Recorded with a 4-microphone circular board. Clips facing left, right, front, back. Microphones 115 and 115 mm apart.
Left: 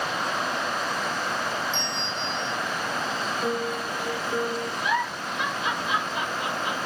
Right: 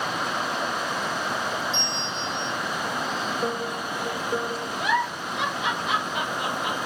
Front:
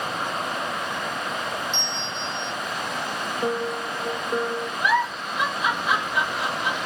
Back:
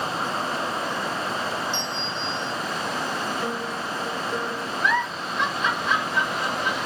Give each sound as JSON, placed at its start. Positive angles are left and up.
{"t": 1.7, "sound": "a bell", "azimuth_deg": -145, "distance_m": 1.7}
{"t": 3.4, "sound": "a piano", "azimuth_deg": -55, "distance_m": 1.0}
{"t": 4.8, "sound": "a giggle", "azimuth_deg": -80, "distance_m": 1.9}